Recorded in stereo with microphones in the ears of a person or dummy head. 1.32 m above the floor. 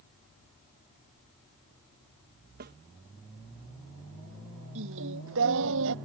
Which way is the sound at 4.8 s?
70° right (ahead or behind).